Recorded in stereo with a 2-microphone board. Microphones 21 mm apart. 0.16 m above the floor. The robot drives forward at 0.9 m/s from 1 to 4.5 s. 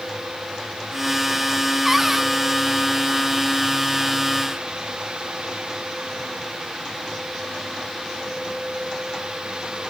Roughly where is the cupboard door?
Centre.